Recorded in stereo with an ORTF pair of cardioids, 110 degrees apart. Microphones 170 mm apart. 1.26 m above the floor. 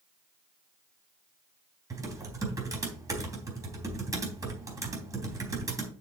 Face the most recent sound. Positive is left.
turn(degrees=-20)